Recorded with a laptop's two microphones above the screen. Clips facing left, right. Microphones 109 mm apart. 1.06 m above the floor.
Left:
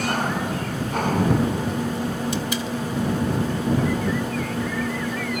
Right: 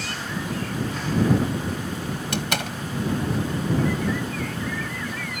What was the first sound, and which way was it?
An engine running, 55° left (ahead or behind).